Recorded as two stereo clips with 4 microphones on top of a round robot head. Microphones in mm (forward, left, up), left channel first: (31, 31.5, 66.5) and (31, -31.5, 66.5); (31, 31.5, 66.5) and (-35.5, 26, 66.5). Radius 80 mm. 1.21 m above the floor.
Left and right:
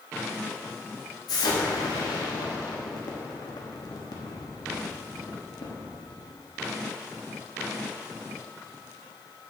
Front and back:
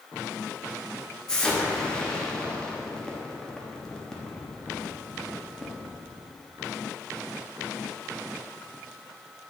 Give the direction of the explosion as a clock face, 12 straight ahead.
9 o'clock.